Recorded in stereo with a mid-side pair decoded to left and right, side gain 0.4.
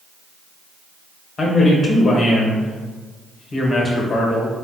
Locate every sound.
1.4 s a man speaking: 45° left, 1.5 m